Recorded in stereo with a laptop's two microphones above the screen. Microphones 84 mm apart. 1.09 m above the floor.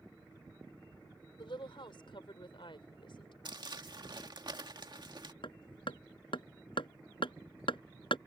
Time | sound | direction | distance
1.4 | a woman speaking | 80° left | ?
3.5 | crumpling | 60° right (ahead or behind) | ?
5.4 | hammering | 80° left | ?